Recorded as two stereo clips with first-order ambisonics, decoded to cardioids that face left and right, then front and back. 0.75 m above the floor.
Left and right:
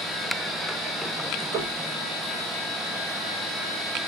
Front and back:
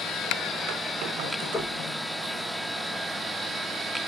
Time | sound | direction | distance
1.5 | knocking | 70° right | 2 m